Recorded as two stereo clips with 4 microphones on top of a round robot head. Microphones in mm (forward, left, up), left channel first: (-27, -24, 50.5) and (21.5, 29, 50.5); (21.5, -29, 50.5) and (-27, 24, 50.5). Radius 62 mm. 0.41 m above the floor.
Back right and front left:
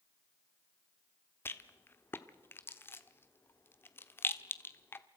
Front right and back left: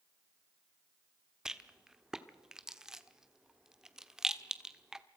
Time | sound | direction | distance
1.4 | a rattle | 150° right | 1.3 m